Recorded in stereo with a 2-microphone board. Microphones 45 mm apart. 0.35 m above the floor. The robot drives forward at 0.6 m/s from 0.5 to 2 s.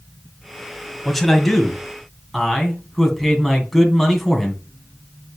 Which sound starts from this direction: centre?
A man speaking, at 1.1 s.